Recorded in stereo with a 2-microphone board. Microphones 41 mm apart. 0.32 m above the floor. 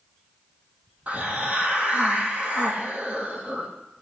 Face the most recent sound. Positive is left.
turn(degrees=-40)  # may be behind; listen again after turning